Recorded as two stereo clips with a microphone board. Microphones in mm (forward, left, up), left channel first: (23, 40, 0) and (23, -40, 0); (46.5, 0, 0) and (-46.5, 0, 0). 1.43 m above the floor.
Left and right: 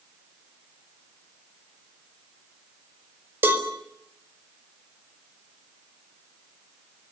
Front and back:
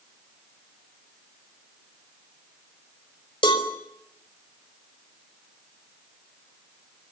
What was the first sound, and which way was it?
A cowbell, 25° right.